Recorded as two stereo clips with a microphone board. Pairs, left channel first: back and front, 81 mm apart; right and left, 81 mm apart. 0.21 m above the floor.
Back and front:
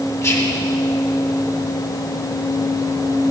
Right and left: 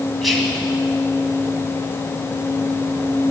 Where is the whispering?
Straight behind, 1.7 m.